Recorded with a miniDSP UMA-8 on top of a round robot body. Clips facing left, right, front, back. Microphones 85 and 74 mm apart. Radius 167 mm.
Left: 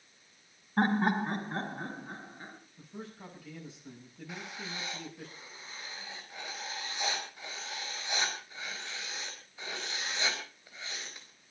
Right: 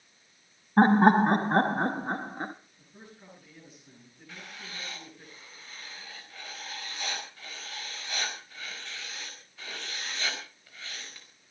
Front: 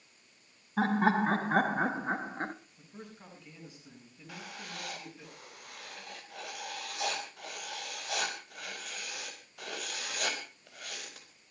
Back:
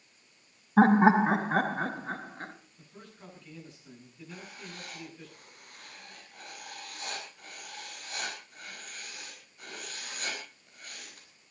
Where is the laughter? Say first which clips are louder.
Right 9 dB, back 7 dB; 135° right, 1.1 m; by 2.5 s 60° right, 1.6 m.